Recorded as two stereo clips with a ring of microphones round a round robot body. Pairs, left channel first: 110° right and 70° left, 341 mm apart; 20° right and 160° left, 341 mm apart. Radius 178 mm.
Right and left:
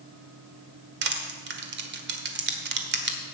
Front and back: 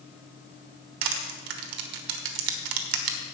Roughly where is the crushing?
Behind left.